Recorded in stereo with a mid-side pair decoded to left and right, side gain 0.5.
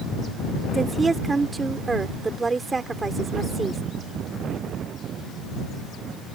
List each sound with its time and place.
0.7 s a woman speaking: 25° right